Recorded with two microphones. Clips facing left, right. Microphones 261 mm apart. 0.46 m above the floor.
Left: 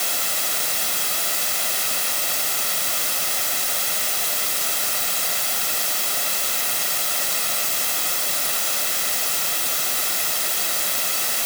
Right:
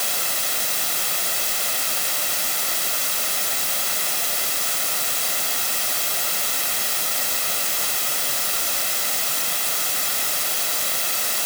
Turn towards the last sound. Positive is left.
No sound to turn to.